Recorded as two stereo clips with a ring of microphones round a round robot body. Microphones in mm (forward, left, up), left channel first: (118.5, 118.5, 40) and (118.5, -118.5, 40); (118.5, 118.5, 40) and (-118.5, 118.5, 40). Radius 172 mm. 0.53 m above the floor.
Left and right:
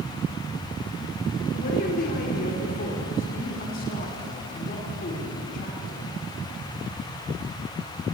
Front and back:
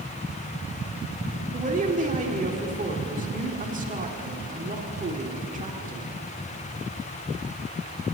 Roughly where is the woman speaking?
Behind left.